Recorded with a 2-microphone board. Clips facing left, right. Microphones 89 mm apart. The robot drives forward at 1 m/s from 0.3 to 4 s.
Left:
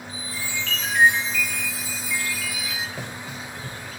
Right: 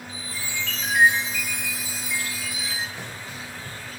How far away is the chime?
About 3 m.